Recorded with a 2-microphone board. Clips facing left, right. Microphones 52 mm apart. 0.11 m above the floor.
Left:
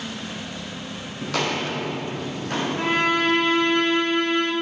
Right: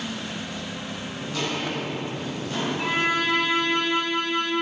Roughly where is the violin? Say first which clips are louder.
Left 3 dB; left.